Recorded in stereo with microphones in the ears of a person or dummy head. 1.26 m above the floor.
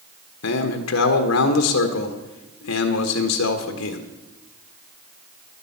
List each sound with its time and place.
0.4 s a man speaking: 75° left (ahead or behind), 1.2 m